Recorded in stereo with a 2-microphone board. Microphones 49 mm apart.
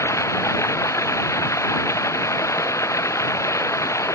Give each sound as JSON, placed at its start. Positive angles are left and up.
{"t": 0.0, "sound": "running water", "side_deg": 80}